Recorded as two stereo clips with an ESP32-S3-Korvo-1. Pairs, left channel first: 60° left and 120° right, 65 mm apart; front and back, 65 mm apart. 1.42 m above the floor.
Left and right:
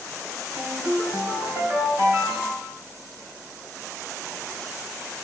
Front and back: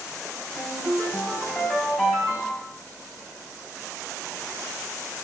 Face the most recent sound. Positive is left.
turn(degrees=-80)